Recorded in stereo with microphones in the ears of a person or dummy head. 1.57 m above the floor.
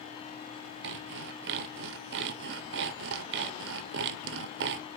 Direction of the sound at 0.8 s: 60° right (ahead or behind).